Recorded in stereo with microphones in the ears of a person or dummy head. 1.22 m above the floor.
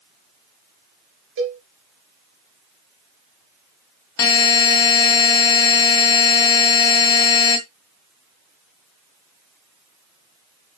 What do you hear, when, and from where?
1.4 s a cowbell: 70° right (ahead or behind), 3 m
4.2 s a buzzer: 20° left (ahead or behind), 2.5 m